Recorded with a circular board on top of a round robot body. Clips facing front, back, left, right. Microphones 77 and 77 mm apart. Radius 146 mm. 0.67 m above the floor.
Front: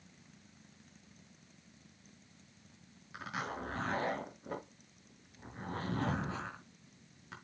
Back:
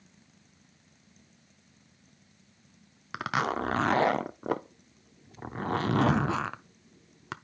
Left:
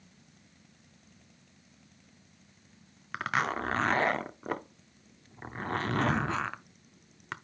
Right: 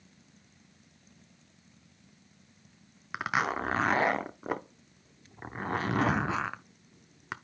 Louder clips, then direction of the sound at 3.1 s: Back 11 dB, right 1 dB; 170° right.